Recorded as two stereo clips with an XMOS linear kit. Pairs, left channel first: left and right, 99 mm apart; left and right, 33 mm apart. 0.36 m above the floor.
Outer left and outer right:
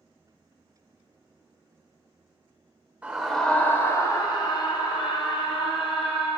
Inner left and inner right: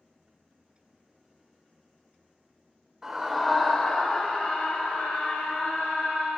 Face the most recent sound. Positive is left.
turn(degrees=60)  # may be behind; listen again after turning